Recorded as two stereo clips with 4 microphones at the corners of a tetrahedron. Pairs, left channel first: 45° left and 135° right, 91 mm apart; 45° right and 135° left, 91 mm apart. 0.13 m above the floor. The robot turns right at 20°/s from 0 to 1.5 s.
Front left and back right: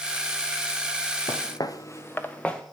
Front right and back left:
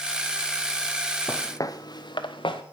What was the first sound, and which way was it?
Footsteps, 10° left.